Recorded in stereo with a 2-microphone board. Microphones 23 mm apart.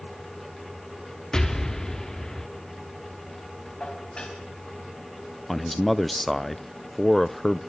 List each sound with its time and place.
1.3 s an explosion: 20° left (ahead or behind), 1.4 m
3.8 s dishes clattering: 40° left (ahead or behind), 5 m
5.5 s a man speaking: 10° left (ahead or behind), 0.6 m